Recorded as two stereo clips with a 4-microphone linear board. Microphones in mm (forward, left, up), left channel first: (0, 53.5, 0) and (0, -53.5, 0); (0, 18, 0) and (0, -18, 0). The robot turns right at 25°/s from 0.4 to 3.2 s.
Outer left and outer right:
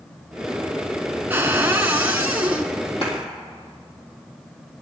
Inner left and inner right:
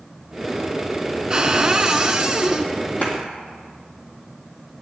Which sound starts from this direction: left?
A clap, at 3.0 s.